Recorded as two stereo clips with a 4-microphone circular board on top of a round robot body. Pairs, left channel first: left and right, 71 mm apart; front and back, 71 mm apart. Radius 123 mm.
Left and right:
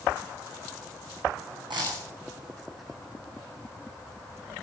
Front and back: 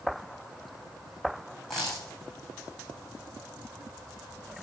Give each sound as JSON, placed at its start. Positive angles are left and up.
{"t": 1.7, "sound": "a dropped coin", "azimuth_deg": -85, "distance_m": 6.0}